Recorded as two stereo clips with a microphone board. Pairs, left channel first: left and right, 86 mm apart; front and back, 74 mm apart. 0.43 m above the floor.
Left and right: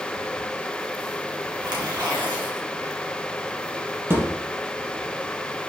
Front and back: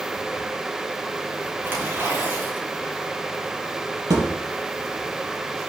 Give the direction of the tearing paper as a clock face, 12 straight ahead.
4 o'clock.